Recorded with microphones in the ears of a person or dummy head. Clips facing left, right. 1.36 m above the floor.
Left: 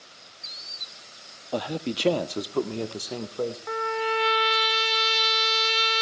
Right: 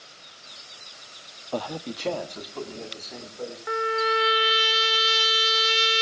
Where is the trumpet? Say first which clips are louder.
Right 2 dB; 5° right (ahead or behind), 1.7 m.